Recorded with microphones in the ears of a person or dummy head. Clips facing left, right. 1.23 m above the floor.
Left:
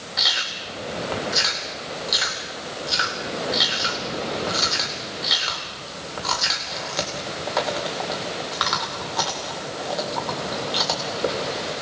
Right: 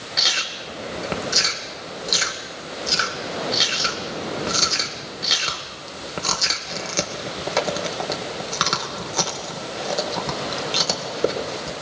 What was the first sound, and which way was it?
Chewing, 40° right (ahead or behind).